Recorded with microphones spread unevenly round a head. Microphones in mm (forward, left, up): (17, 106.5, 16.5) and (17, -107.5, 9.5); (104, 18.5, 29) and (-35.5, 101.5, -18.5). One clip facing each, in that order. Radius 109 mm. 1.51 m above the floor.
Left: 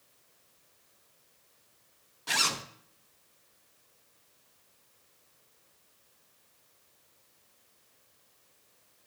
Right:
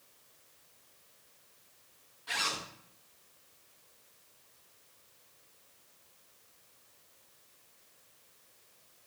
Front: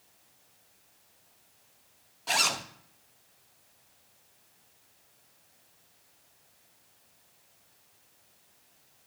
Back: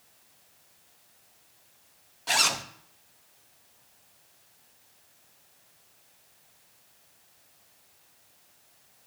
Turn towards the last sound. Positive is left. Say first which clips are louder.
# left 4 dB, back 1 dB
turn(degrees=65)